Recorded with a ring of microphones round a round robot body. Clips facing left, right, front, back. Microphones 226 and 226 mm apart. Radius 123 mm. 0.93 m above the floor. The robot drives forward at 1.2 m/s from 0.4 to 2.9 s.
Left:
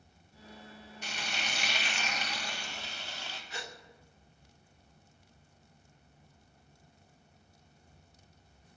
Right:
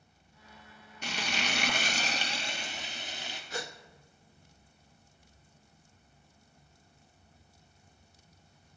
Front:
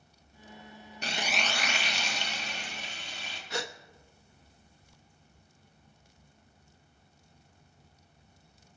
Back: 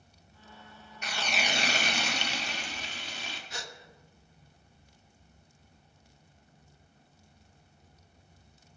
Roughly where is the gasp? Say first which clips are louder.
Right 7 dB, front 11 dB; ahead right.